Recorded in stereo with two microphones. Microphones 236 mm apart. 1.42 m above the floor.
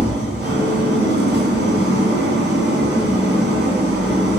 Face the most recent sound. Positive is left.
turn(degrees=-45)  # may be behind; listen again after turning